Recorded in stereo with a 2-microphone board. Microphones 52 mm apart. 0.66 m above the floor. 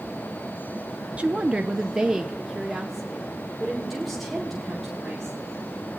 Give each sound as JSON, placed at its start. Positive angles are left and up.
{"t": 1.2, "sound": "a woman speaking", "side_deg": -25, "distance_m": 0.5}